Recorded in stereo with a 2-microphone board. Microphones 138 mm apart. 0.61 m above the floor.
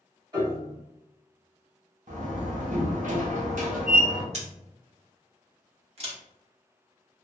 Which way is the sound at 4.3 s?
55° right (ahead or behind).